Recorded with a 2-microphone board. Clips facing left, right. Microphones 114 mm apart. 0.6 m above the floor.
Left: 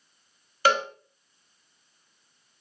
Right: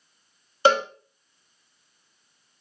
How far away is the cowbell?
About 0.7 m.